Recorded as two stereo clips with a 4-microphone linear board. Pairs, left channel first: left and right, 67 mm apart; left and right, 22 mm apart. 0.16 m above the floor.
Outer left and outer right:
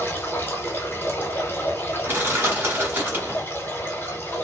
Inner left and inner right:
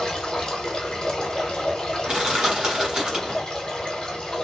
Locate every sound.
0.0 s running water: 30° left (ahead or behind), 1.0 m
2.0 s crushing: 35° right (ahead or behind), 1.3 m